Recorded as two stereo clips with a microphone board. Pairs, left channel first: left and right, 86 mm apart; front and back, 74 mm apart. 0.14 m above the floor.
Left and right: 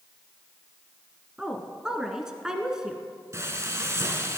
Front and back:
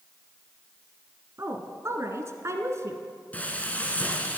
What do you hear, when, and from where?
1.4 s a woman speaking: 170° right, 1.5 m
3.3 s frying: 60° right, 1.5 m